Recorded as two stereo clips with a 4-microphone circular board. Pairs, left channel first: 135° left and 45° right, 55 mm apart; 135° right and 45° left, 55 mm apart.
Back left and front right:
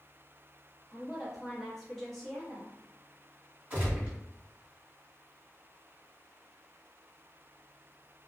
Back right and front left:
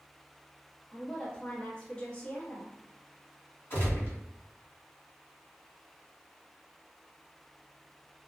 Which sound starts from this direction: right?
A gunshot, at 3.7 s.